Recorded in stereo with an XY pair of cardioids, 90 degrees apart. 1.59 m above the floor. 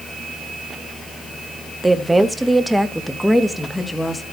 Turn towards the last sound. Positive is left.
turn(degrees=5)